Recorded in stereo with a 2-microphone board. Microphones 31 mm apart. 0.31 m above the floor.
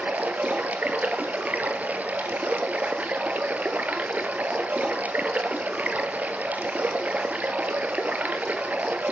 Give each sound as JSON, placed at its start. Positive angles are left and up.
{"t": 0.0, "sound": "running water", "side_deg": -55, "distance_m": 0.7}